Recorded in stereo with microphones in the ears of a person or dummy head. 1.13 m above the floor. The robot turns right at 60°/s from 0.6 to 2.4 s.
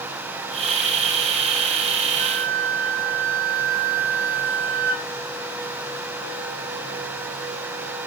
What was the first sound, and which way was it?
A flute, 40° right (ahead or behind).